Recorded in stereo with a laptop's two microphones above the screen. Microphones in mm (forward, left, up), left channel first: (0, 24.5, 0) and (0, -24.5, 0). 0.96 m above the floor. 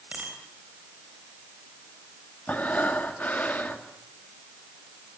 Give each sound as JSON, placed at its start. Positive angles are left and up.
{"t": 0.1, "sound": "a bicycle bell", "side_deg": -30, "distance_m": 3.5}
{"t": 2.5, "sound": "breathing", "side_deg": 35, "distance_m": 1.3}